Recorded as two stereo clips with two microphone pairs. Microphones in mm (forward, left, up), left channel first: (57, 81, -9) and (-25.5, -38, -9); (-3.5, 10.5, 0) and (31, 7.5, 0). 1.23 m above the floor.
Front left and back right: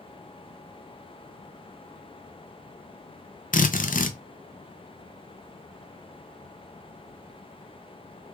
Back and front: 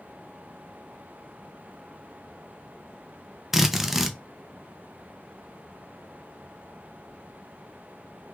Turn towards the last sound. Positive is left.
turn(degrees=75)